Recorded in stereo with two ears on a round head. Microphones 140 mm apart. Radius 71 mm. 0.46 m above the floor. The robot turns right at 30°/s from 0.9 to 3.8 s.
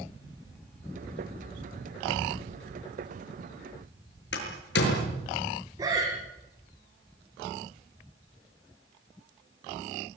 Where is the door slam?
85° left, 6.5 m.